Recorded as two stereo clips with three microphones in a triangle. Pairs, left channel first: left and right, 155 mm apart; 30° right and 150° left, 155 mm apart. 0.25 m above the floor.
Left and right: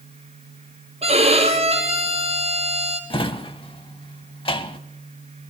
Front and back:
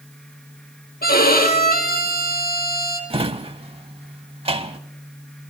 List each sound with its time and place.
1.0 s a violin: 40° right, 2 m
3.1 s a drawer: 125° left, 0.6 m